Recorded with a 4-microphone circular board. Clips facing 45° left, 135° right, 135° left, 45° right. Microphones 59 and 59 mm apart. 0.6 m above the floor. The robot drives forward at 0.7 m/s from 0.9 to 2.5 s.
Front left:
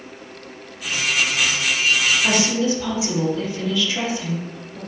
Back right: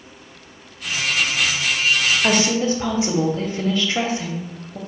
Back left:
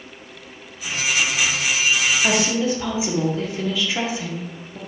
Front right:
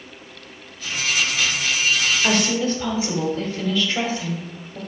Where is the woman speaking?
145° right, 0.9 m; by 4.8 s 155° right, 1.0 m.